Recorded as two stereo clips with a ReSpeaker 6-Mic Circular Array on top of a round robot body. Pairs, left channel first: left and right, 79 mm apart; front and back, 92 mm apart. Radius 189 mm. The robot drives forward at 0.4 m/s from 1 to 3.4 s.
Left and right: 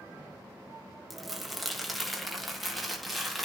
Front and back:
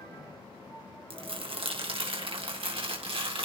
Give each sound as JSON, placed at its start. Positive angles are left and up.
{"t": 1.1, "sound": "crumpling", "azimuth_deg": 180, "distance_m": 2.0}